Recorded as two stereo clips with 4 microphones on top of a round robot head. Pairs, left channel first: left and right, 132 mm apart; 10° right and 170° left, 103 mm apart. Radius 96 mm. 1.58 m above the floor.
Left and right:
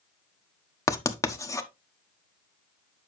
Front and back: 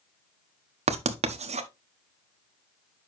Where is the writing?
160° left, 1.1 m.